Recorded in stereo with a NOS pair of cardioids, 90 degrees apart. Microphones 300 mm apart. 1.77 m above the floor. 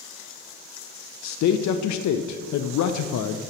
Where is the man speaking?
65° left, 0.7 m.